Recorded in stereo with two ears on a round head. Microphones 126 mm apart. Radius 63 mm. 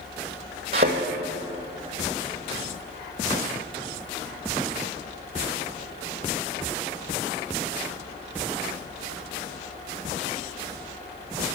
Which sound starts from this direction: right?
A thud, at 0.7 s.